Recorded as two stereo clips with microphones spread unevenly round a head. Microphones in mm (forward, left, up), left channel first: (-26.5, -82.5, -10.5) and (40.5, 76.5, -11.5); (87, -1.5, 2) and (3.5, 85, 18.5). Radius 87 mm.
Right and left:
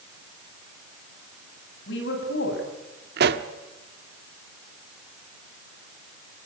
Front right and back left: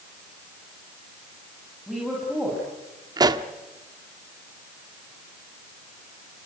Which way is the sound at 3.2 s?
85° left.